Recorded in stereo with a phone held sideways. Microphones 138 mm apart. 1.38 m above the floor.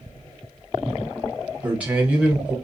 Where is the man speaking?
10° right (ahead or behind), 1.1 m.